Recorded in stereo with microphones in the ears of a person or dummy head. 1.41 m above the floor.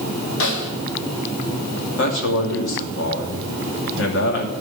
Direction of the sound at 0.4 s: 75° left (ahead or behind).